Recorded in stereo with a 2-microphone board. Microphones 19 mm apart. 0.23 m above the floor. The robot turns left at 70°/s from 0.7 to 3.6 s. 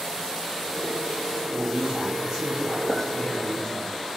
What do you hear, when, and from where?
1.5 s a man speaking: 90° right, 7.5 m; by 3.9 s 125° left, 7.5 m
2.9 s a clink: 25° right (ahead or behind), 3.5 m; by 3.1 s 15° right (ahead or behind), 3.5 m